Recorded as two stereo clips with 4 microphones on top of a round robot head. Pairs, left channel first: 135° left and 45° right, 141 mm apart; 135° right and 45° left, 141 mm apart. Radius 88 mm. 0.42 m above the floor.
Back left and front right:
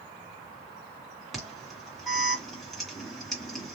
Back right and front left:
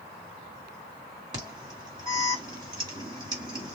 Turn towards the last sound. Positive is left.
turn(degrees=50)